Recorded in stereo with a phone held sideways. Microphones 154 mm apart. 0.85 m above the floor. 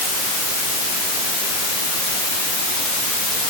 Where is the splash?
I don't hear a splash.